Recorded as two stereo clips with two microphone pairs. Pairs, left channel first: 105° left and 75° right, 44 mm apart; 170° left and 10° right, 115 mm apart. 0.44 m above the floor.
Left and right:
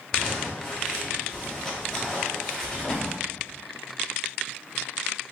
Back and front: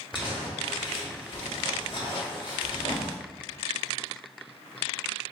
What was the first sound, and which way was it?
Crumpling, 175° left.